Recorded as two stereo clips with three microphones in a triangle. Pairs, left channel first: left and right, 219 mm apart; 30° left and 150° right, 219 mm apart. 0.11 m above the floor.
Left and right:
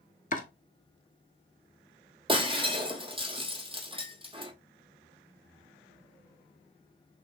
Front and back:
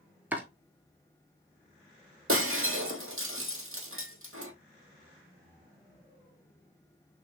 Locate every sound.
0.3 s chopping: 130° left, 0.8 m
2.3 s breaking glass: 155° right, 1.0 m